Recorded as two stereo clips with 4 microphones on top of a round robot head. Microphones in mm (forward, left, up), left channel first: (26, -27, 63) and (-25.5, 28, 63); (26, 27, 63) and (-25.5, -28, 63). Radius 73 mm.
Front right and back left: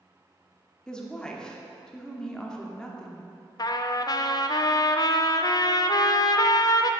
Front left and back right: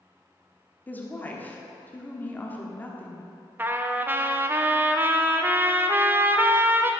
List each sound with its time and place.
0.9 s a woman speaking: 20° left, 1.4 m
3.6 s a trumpet: 70° right, 0.6 m